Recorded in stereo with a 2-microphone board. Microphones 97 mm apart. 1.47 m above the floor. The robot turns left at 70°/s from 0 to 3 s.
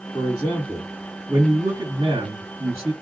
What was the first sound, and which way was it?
A man speaking, 60° left.